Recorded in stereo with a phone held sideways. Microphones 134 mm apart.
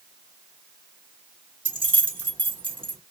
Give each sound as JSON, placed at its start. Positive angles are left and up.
{"t": 1.6, "sound": "keys jangling", "side_deg": -40, "distance_m": 1.2}